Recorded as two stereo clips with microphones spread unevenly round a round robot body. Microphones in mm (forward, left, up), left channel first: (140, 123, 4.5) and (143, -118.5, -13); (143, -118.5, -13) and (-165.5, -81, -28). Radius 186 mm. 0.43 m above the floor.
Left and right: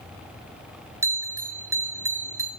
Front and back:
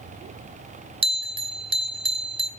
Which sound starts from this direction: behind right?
A bell, at 1.0 s.